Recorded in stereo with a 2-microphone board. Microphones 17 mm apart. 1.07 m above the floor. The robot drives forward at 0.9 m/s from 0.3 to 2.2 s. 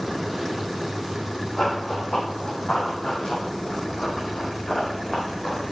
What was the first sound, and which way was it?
Running footsteps, 60° left (ahead or behind).